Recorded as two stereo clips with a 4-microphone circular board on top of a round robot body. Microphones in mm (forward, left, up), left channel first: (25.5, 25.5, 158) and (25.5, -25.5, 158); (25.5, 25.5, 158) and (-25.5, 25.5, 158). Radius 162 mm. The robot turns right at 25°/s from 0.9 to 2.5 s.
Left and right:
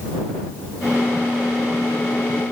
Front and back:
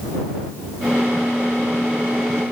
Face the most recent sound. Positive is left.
No sound to turn to.